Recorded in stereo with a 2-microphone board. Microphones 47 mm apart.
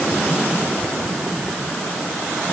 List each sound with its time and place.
Only background noise.